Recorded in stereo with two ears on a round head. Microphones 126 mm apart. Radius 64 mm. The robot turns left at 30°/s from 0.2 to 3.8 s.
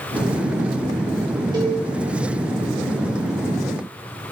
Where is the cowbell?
30° right (ahead or behind), 1.7 m; by 1.8 s 35° right (ahead or behind), 1.7 m.